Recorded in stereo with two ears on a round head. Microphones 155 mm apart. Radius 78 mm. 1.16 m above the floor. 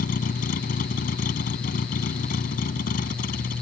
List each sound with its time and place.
0.0 s a vehicle: 50° left (ahead or behind)